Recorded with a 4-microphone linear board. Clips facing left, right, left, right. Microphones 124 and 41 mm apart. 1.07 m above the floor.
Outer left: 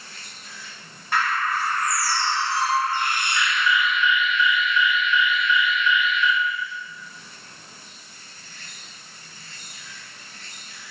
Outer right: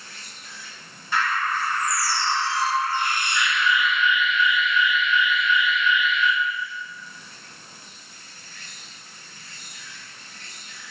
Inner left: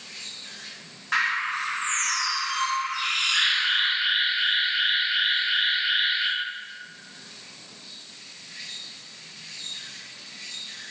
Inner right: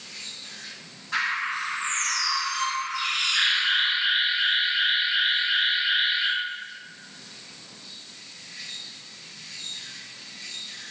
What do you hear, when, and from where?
0.0 s an insect: 35° left (ahead or behind), 1.0 m
1.1 s a bird: 60° left (ahead or behind), 0.8 m
3.4 s an alarm: 5° right (ahead or behind), 1.3 m